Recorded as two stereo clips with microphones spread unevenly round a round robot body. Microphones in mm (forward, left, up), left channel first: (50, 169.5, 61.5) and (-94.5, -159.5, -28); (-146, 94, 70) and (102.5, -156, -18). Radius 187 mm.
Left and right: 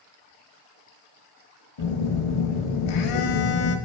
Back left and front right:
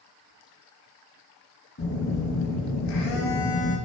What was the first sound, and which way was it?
A phone buzzing, 75° left.